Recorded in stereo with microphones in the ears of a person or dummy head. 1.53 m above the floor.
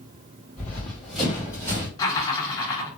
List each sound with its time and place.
0.6 s running footsteps: 15° left (ahead or behind), 2.0 m; by 1.9 s 20° right (ahead or behind), 2.0 m
2.0 s laughter: 25° left (ahead or behind), 1.6 m